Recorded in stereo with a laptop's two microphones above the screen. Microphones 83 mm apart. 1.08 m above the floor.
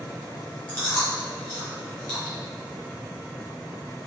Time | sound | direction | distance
0.7 | chewing | 20° left (ahead or behind) | 1.8 m